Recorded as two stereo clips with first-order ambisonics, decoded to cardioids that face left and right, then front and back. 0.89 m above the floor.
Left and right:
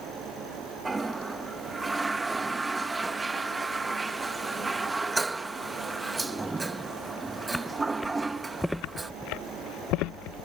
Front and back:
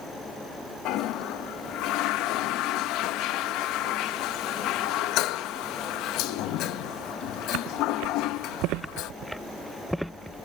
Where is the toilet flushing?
15° right.